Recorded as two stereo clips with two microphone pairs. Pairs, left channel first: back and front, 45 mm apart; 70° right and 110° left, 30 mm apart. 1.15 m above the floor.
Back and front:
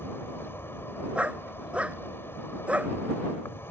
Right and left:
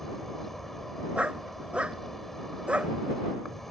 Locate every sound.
0.0 s an insect: 150° right
1.1 s a dog barking: 65° left